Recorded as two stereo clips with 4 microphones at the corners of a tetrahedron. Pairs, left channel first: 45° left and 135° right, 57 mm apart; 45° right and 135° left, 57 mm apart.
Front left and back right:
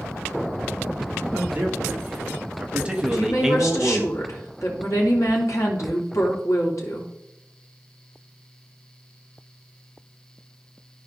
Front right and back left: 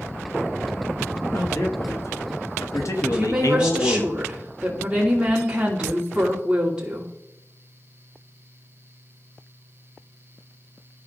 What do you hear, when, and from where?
1.3 s a man speaking: 75° right, 2.5 m; by 4.0 s 35° right, 0.8 m
3.0 s a woman speaking: 65° left, 3 m